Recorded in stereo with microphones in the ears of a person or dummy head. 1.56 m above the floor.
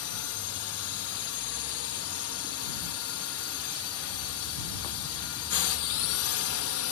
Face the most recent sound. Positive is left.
turn(degrees=70)  # may be behind; listen again after turning